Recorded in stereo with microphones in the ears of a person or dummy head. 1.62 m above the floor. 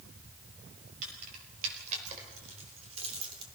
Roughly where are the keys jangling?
Right.